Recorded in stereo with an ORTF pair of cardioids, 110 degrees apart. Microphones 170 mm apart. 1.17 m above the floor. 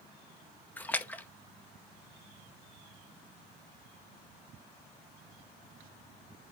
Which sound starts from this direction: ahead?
A splash, at 0.8 s.